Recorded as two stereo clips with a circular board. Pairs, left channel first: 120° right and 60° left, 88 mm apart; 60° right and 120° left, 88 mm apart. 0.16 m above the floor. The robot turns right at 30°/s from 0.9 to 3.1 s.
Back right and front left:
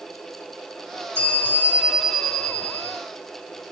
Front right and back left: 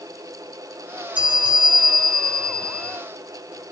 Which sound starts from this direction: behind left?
A bell, at 1.1 s.